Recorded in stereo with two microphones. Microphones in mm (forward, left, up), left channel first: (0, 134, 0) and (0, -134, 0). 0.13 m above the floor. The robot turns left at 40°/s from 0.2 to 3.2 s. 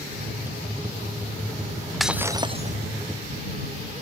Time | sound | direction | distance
2.0 | breaking glass | straight ahead | ?